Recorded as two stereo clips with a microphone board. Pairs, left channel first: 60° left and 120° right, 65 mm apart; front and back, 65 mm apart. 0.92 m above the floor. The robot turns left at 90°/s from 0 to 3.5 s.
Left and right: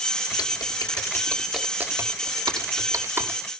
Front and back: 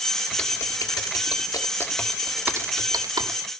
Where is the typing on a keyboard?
80° left, 1.4 m; by 3.4 s 160° left, 1.4 m.